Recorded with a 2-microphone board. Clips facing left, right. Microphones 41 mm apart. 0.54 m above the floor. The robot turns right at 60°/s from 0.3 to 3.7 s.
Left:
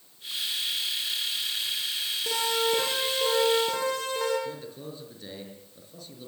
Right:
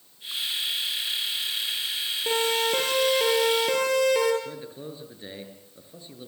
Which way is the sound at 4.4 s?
25° right (ahead or behind).